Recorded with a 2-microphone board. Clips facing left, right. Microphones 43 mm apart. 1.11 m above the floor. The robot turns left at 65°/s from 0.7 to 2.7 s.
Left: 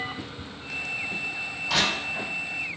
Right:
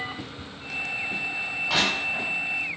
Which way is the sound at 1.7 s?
20° right (ahead or behind).